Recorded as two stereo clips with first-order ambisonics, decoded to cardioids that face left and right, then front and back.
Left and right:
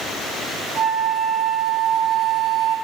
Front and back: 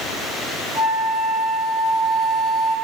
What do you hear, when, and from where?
0.8 s a flute: 175° left, 0.7 m